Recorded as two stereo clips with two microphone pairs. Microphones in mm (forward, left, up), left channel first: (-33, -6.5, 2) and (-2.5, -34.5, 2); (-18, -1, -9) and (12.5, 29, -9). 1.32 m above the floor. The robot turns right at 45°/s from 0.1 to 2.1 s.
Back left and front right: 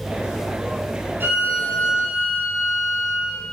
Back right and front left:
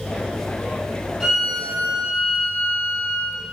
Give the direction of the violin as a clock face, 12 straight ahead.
2 o'clock.